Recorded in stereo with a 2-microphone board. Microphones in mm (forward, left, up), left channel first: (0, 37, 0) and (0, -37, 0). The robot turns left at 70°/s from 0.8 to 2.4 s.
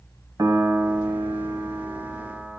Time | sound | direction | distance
0.4 | a piano | 55° right | 0.8 m